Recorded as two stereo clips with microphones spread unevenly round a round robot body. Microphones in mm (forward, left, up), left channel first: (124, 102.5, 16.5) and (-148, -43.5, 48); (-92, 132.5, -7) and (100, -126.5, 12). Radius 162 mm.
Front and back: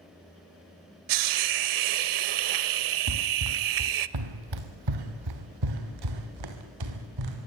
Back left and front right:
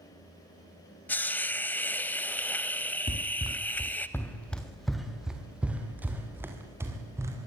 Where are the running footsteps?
165° right, 1.4 m; by 7.5 s 135° right, 4.5 m.